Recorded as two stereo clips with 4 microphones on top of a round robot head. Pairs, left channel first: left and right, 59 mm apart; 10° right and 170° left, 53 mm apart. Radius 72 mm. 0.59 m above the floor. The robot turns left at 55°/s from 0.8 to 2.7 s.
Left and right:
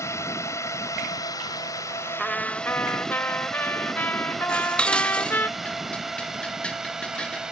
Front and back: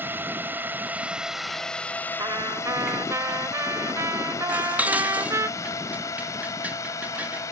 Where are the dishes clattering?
145° left.